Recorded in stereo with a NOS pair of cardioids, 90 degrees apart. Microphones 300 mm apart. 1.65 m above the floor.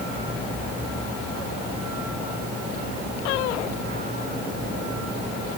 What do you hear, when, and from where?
Only background noise.